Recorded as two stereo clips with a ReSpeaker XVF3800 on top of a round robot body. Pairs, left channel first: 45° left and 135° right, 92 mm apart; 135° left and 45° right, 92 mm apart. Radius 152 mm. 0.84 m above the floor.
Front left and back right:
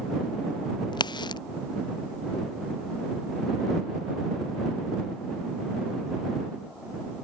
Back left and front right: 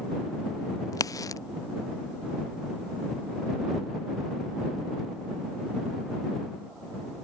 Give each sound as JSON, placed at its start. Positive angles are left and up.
{"t": 0.9, "sound": "a crack", "azimuth_deg": 80}